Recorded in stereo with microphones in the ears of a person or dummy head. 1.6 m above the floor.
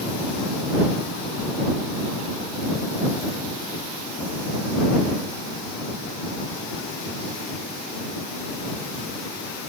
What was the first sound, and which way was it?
Only background noise.